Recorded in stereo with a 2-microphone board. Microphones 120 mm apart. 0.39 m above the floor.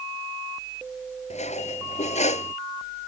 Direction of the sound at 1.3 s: 65° left (ahead or behind).